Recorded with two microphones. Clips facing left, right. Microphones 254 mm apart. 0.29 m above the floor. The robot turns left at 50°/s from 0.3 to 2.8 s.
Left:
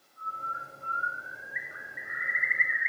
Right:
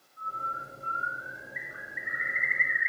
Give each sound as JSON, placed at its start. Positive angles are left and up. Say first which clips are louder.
{"t": 0.2, "sound": "a bird", "louder": "right 2 dB", "azimuth_deg": 75, "distance_m": 2.5}